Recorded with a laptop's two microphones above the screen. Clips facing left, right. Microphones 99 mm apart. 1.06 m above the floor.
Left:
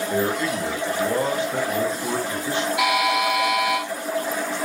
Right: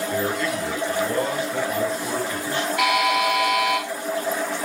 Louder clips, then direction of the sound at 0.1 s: Left 3 dB; 25° left (ahead or behind).